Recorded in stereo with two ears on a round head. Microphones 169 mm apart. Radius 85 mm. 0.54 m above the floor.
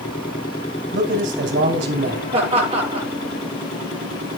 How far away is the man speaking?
About 3 m.